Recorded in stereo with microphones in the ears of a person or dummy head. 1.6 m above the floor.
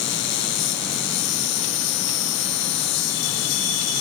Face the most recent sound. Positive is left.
turn(degrees=65)  # may be behind; listen again after turning